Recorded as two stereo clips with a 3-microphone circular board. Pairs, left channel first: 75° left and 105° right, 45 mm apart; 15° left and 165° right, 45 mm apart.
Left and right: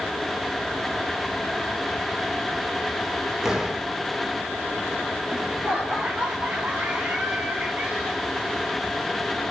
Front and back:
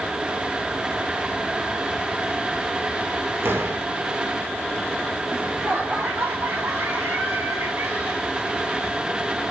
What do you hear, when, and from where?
3.4 s a door slam: 175° left, 4 m
5.3 s laughter: 155° right, 8 m